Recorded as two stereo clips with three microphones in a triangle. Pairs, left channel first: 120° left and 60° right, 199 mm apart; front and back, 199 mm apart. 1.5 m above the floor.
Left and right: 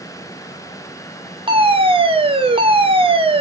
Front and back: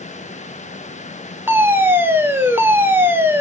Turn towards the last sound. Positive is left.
turn(degrees=-105)